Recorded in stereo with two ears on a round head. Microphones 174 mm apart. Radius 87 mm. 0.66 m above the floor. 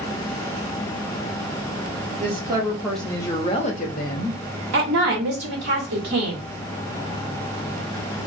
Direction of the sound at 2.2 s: 30° right (ahead or behind).